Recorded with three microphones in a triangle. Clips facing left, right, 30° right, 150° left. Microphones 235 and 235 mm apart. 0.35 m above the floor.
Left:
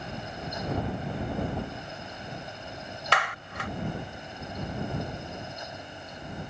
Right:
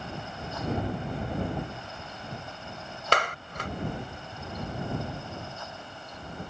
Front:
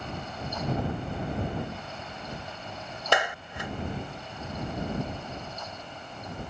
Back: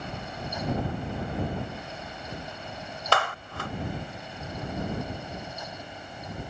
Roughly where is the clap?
Right.